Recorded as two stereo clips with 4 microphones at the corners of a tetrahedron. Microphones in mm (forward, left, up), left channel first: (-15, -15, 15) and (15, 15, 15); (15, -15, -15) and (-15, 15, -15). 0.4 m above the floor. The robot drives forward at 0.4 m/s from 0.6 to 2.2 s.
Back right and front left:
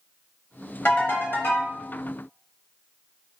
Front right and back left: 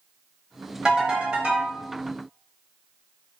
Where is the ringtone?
160° right, 1.0 m; by 1.7 s 165° right, 1.3 m.